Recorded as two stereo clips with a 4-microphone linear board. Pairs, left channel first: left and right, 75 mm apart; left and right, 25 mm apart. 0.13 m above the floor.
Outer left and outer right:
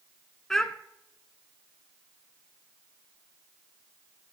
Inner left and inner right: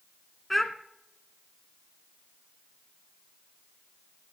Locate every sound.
0.5 s a child speaking: 5° left (ahead or behind), 0.7 m